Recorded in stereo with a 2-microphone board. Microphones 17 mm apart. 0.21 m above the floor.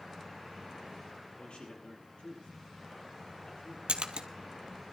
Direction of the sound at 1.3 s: 75° left (ahead or behind).